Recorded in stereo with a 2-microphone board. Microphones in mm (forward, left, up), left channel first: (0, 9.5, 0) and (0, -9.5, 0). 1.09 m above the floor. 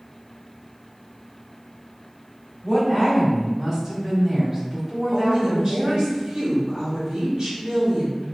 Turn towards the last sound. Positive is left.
turn(degrees=-50)  # may be behind; listen again after turning